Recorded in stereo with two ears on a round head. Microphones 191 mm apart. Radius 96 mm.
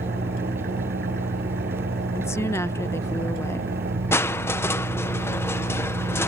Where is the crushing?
10° left (ahead or behind).